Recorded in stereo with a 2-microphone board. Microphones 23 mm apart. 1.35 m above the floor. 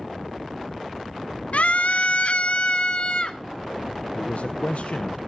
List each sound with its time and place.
1.5 s a scream: 80° left, 0.7 m; by 3.4 s 45° left (ahead or behind), 1.5 m
4.2 s a man speaking: 80° left, 0.6 m